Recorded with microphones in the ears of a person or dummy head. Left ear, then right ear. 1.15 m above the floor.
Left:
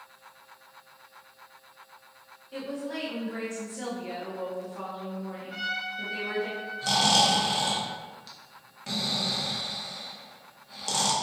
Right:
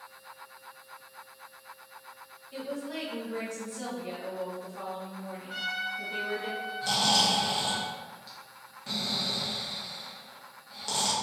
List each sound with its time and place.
2.5 s a woman speaking: 5° left (ahead or behind), 0.8 m
5.5 s a trumpet: 80° right, 2.0 m
6.8 s snoring: 10° left (ahead or behind), 0.6 m